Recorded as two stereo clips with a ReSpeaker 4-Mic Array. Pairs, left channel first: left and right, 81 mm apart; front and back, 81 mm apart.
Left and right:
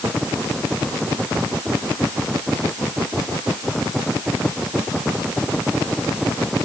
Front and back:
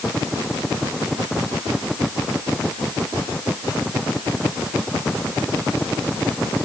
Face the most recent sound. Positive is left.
No sound to turn to.